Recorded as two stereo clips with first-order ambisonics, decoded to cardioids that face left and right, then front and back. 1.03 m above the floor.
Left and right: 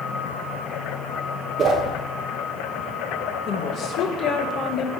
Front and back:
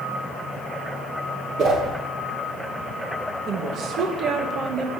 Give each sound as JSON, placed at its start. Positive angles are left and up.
{"t": 1.6, "sound": "a whoosh", "azimuth_deg": -145, "distance_m": 1.3}
{"t": 3.5, "sound": "a woman speaking", "azimuth_deg": 130, "distance_m": 0.9}